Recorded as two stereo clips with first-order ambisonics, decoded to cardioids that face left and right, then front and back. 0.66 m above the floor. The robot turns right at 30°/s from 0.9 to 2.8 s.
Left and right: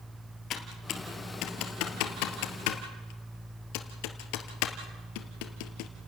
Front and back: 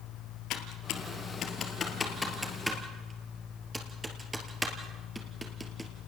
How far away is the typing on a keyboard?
About 2 m.